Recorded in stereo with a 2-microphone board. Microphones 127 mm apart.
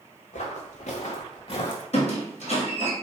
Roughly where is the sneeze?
No sneeze in this recording.